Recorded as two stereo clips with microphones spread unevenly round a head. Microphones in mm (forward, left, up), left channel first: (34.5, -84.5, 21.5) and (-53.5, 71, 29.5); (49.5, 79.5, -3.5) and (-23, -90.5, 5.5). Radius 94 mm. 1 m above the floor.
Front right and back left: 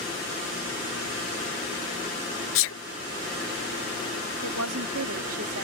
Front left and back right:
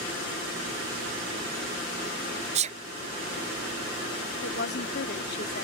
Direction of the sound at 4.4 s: 110° left.